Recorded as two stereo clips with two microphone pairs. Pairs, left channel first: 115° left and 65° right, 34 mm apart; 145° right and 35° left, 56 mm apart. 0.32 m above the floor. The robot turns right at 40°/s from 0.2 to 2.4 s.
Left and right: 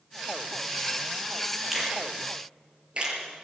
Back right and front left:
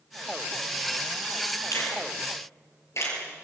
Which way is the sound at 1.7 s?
145° right.